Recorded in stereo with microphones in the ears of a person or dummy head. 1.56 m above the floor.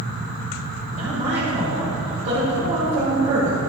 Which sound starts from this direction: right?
A woman speaking, at 0.9 s.